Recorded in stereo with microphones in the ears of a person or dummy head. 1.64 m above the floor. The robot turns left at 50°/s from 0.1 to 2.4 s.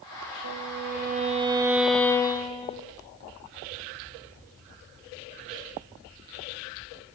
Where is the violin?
110° right, 3 m; by 2.8 s 155° left, 3 m.